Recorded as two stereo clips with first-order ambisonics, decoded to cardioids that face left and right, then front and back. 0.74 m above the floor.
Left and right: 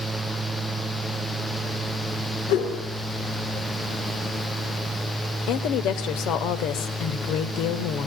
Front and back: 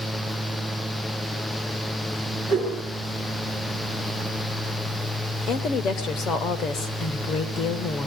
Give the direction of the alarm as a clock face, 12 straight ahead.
I don't hear an alarm.